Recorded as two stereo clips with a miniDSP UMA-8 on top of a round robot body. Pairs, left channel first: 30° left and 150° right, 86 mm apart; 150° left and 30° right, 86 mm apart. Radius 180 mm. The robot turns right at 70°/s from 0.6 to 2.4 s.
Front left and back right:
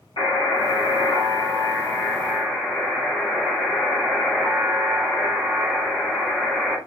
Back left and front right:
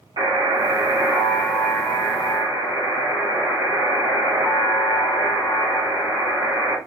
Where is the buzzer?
Straight ahead, 1.5 m; by 6.8 s 125° left, 1.5 m.